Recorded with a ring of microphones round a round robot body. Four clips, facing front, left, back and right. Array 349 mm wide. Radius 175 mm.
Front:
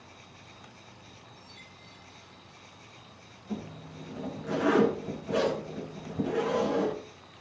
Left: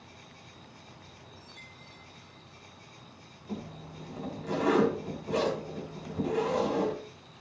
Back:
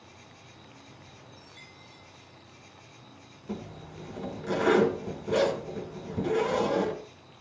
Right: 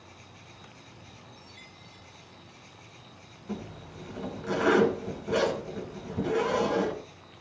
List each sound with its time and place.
0.0 s an insect: 110° left, 7 m
1.3 s a chime: 140° left, 4 m
3.5 s a zipper: 160° right, 3 m